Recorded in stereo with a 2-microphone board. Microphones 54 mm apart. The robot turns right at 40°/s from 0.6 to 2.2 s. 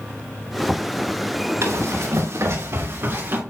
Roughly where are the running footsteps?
Right.